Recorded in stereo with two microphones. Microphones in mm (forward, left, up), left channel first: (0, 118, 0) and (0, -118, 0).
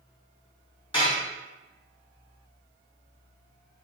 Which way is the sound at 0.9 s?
20° left (ahead or behind).